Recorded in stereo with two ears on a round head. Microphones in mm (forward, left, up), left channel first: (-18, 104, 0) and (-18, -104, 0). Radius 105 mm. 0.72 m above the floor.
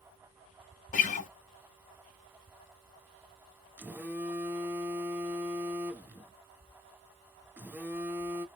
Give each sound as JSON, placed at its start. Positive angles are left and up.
{"t": 0.9, "sound": "a guitar", "side_deg": 35, "distance_m": 0.6}
{"t": 3.8, "sound": "a phone buzzing", "side_deg": -10, "distance_m": 0.6}